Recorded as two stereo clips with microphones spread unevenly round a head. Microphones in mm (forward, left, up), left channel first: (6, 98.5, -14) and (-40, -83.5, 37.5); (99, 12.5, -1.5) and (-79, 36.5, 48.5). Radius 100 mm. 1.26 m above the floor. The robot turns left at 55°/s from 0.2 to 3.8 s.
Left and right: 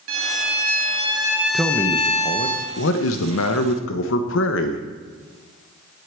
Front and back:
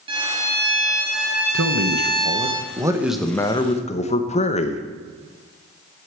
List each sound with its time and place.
0.1 s a violin: 120° right, 2 m; by 2.5 s 110° left, 2 m
1.5 s a man speaking: 170° left, 1.0 m; by 4.8 s 50° left, 1.0 m